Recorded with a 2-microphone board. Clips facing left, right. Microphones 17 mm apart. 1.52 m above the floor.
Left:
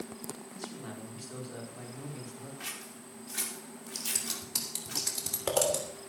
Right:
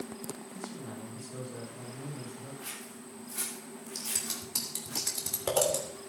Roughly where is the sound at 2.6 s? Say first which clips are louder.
Left 1 dB; left.